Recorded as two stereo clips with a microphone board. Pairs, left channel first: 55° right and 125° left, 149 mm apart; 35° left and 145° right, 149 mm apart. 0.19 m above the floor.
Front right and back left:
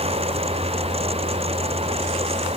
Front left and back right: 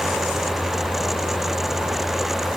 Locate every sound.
Only background noise.